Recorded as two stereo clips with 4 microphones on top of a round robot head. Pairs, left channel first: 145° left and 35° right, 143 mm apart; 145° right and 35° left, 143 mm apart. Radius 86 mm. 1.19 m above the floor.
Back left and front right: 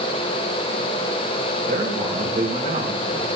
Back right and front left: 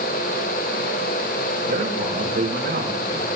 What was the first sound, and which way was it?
A man speaking, straight ahead.